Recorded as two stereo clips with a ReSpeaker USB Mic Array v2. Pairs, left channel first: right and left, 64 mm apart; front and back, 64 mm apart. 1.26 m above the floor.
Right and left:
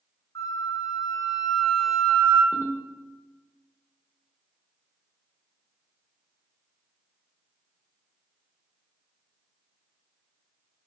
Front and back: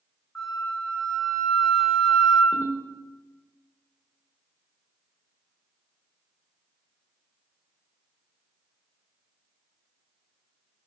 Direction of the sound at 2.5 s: 135° left.